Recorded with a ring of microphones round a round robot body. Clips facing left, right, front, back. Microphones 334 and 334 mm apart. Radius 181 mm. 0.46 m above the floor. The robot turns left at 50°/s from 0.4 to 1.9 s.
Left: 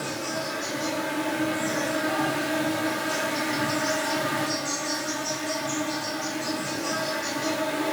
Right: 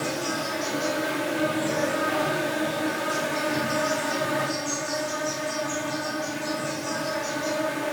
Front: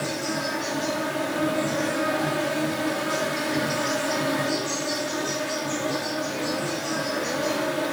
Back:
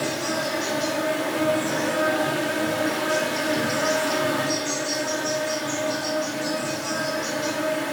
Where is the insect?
160° right, 1.2 m; by 7.9 s 125° left, 1.2 m.